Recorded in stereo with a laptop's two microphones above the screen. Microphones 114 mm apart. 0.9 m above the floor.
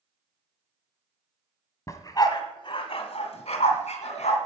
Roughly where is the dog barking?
Left.